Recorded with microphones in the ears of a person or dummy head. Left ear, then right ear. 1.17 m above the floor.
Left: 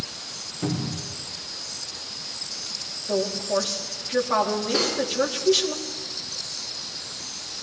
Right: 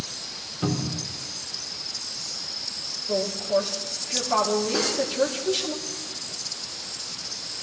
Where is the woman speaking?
25° left (ahead or behind), 2.5 m.